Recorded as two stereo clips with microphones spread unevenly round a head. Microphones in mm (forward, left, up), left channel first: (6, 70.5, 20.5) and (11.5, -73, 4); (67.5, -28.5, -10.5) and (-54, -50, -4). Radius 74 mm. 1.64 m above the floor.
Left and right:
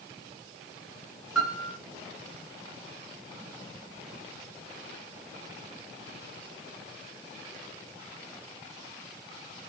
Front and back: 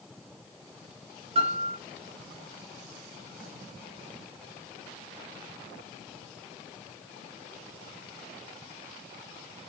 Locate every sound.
1.4 s a piano: straight behind, 1.6 m